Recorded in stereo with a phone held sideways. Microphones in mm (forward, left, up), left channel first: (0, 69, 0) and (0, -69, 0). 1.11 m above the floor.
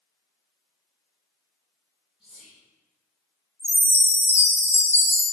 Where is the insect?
I don't hear an insect.